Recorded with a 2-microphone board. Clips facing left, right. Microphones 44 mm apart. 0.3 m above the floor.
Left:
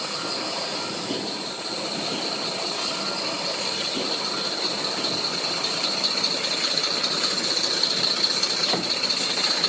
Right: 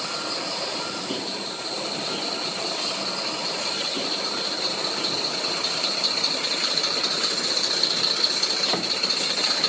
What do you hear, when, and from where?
Only background noise.